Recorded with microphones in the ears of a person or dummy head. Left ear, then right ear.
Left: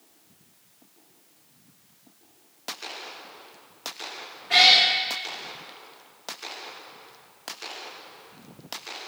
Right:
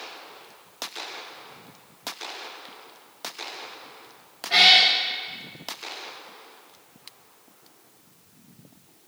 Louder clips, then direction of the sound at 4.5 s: Right 1 dB; 15° left (ahead or behind).